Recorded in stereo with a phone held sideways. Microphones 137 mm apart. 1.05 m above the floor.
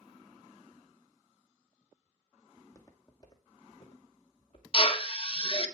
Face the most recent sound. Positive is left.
turn(degrees=45)  # may be behind; listen again after turning